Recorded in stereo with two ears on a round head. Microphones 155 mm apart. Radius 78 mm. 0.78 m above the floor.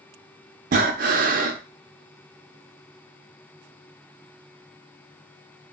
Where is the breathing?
55° right (ahead or behind), 0.5 m.